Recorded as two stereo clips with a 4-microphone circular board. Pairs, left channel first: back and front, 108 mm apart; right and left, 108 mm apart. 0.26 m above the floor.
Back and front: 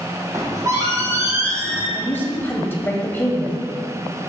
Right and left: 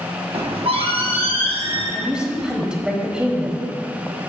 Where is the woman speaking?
160° left, 1.1 m.